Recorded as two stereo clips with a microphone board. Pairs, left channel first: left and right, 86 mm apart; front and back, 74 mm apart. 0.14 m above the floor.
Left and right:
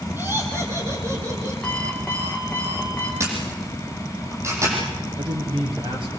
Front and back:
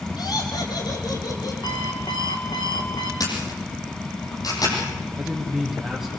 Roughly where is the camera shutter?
Ahead right.